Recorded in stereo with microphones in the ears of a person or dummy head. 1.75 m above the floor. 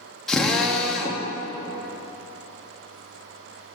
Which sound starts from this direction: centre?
A drill, at 0.3 s.